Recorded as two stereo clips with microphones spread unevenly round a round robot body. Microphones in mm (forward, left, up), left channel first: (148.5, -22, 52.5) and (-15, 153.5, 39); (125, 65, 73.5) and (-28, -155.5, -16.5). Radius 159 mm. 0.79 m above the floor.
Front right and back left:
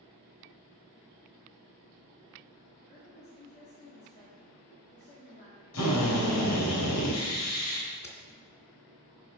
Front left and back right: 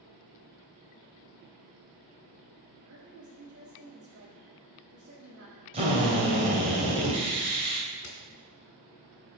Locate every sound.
2.9 s a woman speaking: 95° right, 2.0 m
5.7 s a drill: 55° right, 3 m
8.0 s a crack: 15° left, 2.5 m